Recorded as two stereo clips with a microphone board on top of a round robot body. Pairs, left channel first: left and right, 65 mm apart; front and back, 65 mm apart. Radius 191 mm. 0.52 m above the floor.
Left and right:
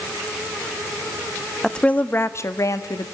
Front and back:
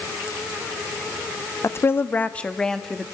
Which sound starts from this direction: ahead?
A woman speaking, at 1.6 s.